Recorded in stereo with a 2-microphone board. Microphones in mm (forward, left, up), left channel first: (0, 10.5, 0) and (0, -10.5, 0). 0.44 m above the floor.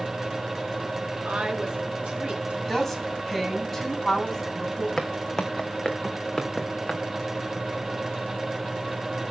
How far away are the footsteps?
About 1.6 m.